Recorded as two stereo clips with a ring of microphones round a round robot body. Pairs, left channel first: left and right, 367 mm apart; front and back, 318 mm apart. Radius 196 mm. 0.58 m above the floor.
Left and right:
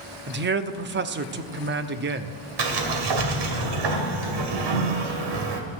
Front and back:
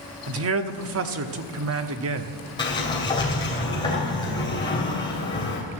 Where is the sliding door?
80° right, 2.5 m.